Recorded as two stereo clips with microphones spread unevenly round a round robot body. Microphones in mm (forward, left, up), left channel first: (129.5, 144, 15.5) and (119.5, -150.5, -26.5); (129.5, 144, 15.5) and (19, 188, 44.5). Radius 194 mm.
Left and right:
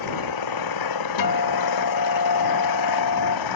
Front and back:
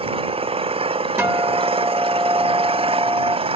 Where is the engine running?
120° left.